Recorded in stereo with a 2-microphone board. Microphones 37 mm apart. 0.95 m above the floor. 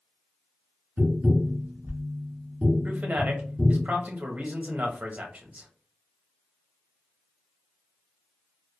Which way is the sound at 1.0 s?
65° right (ahead or behind).